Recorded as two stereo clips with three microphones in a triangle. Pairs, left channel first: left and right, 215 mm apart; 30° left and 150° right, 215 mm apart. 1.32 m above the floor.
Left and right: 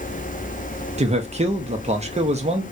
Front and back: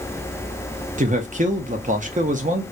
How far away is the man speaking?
About 0.6 m.